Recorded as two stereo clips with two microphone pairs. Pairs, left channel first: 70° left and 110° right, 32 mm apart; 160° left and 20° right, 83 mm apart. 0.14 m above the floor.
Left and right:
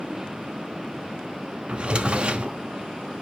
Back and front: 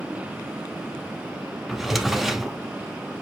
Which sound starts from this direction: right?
A drawer, at 1.7 s.